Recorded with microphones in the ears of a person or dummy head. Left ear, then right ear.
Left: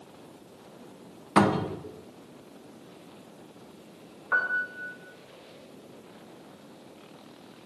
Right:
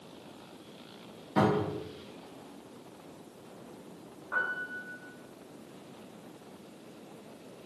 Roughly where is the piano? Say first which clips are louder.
Left 6 dB; left.